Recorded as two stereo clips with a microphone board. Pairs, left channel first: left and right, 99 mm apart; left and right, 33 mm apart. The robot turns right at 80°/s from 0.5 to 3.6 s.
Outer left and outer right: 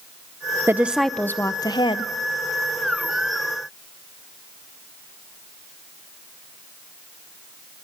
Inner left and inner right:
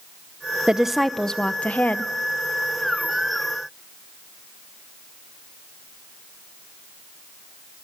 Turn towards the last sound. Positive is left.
turn(degrees=-155)